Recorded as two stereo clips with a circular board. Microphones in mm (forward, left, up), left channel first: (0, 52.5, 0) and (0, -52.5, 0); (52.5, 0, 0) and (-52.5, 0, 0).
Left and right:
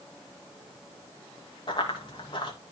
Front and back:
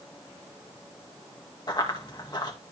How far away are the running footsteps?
About 3.5 m.